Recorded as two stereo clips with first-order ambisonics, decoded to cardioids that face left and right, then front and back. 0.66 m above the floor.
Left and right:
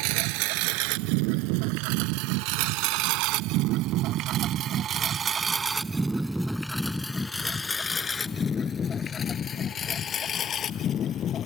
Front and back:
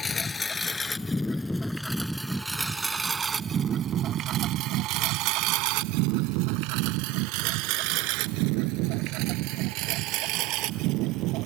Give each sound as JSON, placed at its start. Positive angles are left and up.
{"t": 0.0, "sound": "a lawn mower", "azimuth_deg": -80}